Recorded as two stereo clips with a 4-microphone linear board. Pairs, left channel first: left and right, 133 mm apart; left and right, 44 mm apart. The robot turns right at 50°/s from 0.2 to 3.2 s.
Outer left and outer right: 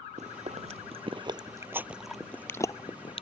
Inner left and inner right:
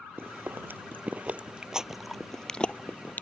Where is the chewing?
60° right (ahead or behind); by 3.2 s 45° left (ahead or behind).